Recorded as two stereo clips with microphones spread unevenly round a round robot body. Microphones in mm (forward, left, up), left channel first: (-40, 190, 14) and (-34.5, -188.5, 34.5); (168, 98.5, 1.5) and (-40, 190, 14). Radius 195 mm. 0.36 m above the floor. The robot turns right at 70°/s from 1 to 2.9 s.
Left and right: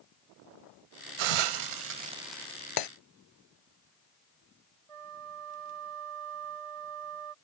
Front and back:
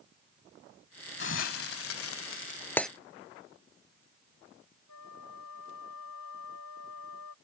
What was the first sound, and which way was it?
A hiss, 80° right.